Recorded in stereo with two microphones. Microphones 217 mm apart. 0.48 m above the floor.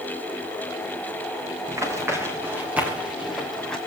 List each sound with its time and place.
1.7 s running footsteps: 15° right (ahead or behind), 6.5 m; by 3.8 s centre (ahead or behind), 5 m